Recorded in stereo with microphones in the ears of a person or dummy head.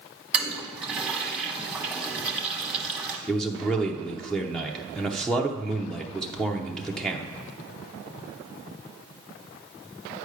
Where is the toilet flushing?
10° right (ahead or behind), 1.2 m.